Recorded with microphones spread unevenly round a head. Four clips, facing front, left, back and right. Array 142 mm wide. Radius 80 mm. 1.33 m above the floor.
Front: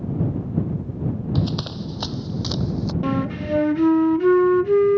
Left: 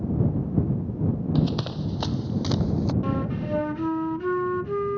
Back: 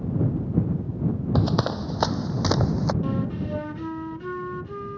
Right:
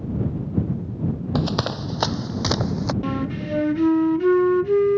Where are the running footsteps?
140° right.